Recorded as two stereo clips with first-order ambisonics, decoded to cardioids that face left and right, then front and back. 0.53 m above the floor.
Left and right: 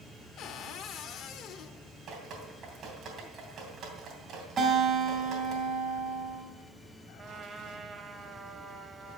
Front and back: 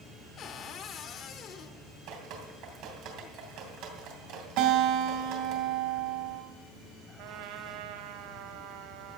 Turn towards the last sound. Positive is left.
turn(degrees=-165)